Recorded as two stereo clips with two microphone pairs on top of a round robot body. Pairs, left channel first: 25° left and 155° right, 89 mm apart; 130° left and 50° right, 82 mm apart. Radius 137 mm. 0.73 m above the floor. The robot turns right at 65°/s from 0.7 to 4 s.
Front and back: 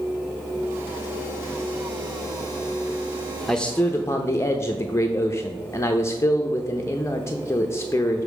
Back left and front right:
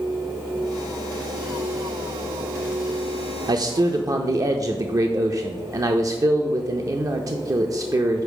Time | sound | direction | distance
3.5 | a man speaking | 55° right | 0.6 m